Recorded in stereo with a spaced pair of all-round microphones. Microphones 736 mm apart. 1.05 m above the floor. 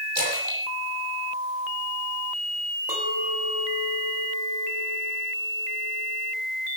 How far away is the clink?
About 6.5 m.